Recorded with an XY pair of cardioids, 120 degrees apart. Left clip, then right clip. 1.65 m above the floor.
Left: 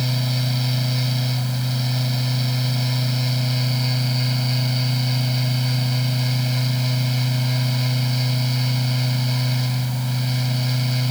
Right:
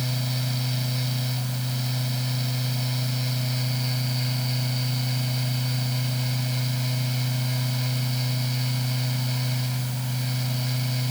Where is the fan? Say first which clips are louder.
Left 5 dB; 30° left.